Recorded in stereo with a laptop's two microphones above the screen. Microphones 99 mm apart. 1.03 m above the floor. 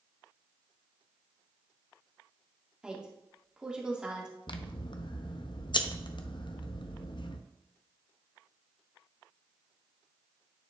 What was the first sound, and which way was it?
A woman speaking, 10° right (ahead or behind).